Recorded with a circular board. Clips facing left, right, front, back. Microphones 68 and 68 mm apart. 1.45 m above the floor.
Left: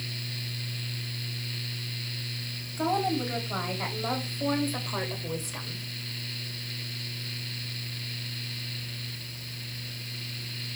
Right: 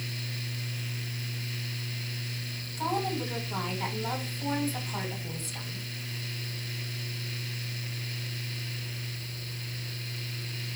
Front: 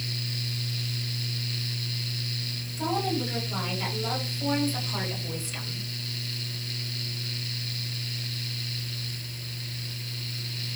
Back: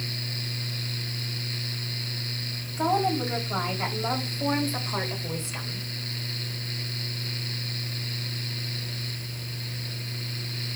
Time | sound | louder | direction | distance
2.8 | a woman speaking | left 3 dB, back 4 dB | 135° left | 3.5 m